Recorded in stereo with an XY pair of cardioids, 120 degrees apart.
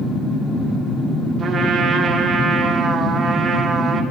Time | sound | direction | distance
1.4 | a trumpet | 40° right | 2.0 m